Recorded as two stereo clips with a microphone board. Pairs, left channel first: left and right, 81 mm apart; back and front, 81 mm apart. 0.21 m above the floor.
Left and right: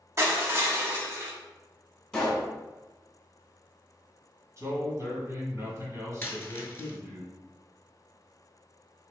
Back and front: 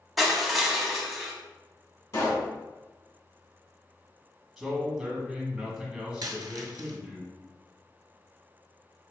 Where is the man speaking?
80° right, 1.5 m.